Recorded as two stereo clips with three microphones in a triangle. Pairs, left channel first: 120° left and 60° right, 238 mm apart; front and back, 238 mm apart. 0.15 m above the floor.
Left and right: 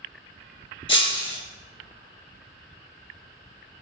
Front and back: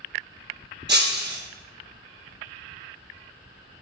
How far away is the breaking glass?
About 0.8 m.